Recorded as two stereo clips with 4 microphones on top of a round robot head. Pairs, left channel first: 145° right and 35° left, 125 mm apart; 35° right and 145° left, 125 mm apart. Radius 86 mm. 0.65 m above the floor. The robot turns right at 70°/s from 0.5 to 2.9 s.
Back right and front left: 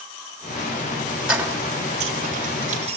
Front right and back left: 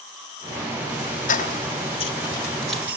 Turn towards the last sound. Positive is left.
turn(degrees=65)